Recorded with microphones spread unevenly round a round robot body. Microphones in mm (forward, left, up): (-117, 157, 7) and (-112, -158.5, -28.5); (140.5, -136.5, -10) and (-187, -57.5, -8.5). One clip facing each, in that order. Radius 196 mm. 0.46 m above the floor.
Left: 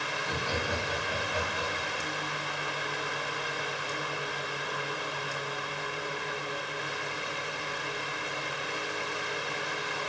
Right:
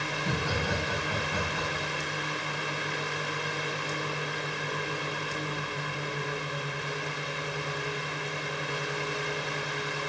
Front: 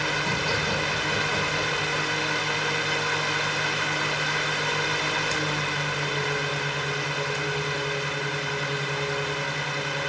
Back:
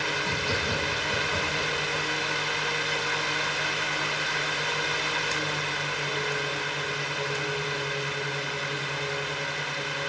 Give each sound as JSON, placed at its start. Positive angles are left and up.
{"t": 0.1, "sound": "laughter", "azimuth_deg": -120, "distance_m": 4.0}